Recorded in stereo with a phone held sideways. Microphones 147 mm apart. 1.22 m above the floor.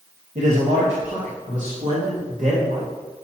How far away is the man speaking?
About 1.1 m.